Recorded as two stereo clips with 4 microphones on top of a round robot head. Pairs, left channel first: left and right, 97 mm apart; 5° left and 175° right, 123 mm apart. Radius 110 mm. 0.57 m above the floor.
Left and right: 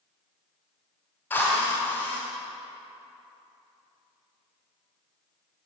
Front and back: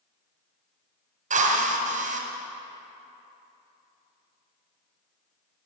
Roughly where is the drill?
Behind.